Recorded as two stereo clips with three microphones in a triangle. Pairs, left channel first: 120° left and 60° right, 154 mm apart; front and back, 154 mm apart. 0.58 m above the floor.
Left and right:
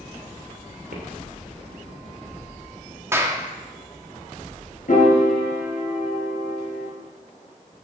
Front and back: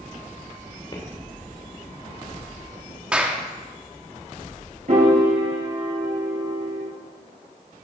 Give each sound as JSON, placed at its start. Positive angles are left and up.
{"t": 0.9, "sound": "footsteps", "azimuth_deg": -55, "distance_m": 3.0}
{"t": 3.1, "sound": "a clap", "azimuth_deg": -105, "distance_m": 1.0}
{"t": 4.9, "sound": "a piano", "azimuth_deg": 145, "distance_m": 3.5}